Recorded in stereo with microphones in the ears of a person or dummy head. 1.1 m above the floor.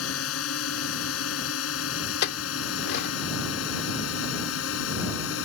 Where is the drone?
80° left; by 5.5 s 65° left (ahead or behind).